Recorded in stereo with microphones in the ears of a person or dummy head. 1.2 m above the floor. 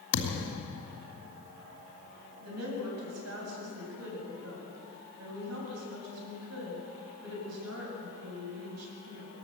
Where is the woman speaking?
90° right, 8 m.